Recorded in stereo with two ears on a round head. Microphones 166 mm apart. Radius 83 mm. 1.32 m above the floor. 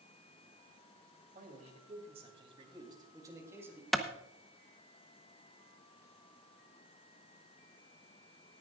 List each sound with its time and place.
1.4 s a man speaking: 45° right (ahead or behind), 3 m; by 3.8 s 10° right (ahead or behind), 3 m
3.9 s a clap: centre (ahead or behind), 0.9 m